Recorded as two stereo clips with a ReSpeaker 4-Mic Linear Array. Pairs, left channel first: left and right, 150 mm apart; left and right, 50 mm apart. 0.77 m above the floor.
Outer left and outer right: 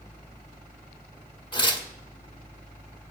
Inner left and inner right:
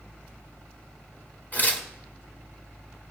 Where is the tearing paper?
35° left (ahead or behind), 1.6 m.